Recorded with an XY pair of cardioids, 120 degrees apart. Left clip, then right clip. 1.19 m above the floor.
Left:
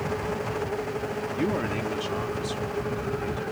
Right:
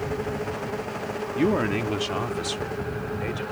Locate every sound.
1.4 s a man speaking: 25° right; by 3.4 s 50° right